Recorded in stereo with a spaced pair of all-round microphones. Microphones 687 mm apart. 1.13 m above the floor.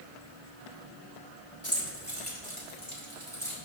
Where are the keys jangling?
20° left (ahead or behind), 2.5 m; by 3.6 s 5° left (ahead or behind), 3.5 m.